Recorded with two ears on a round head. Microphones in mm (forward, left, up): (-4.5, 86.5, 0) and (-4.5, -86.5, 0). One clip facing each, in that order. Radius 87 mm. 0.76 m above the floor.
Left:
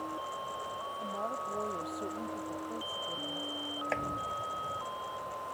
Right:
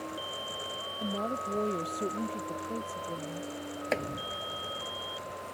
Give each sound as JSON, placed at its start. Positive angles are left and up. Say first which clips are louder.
{"t": 1.0, "sound": "a woman speaking", "louder": "right 6 dB", "side_deg": -40}
{"t": 3.9, "sound": "chopping", "louder": "right 5 dB", "side_deg": -50}